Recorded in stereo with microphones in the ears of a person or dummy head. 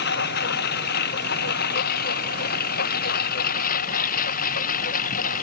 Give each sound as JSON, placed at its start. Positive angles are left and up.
{"t": 0.0, "sound": "a lawn mower", "side_deg": 55}